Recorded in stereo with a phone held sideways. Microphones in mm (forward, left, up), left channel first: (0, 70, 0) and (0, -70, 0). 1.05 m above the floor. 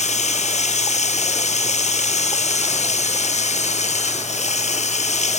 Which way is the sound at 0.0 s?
55° left (ahead or behind).